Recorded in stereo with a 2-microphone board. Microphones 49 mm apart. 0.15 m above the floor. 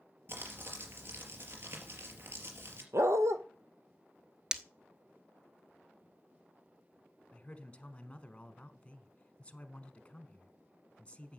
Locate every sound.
0.3 s crumpling: 50° right (ahead or behind), 3.5 m
2.9 s a dog barking: 75° right (ahead or behind), 1.4 m
4.5 s breaking glass: 15° right (ahead or behind), 0.9 m
7.3 s a man speaking: 25° left (ahead or behind), 1.2 m